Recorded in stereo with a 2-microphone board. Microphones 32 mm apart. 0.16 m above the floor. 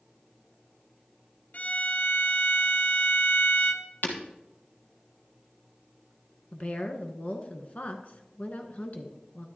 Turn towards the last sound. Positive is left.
turn(degrees=50)  # may be behind; listen again after turning